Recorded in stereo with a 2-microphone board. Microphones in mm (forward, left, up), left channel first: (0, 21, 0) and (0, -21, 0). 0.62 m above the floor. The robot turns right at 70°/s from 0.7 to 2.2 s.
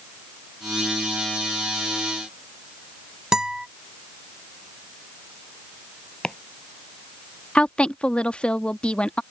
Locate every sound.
3.3 s a guitar: 20° right (ahead or behind)
6.2 s chopping: 20° left (ahead or behind)
7.5 s a woman speaking: 25° left (ahead or behind)